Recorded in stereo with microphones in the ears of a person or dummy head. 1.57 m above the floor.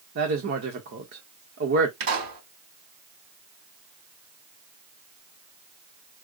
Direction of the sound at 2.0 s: 70° right (ahead or behind).